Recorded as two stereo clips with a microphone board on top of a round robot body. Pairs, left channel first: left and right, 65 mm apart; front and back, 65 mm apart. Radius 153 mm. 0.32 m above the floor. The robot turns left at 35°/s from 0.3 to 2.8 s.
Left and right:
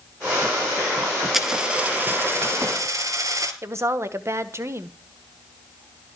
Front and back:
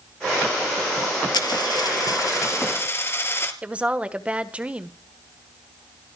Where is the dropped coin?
5° right, 3 m; by 3.5 s 55° right, 3 m.